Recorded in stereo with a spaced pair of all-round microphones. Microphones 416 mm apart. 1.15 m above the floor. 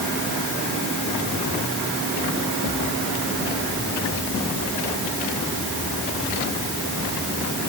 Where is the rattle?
No rattle in this recording.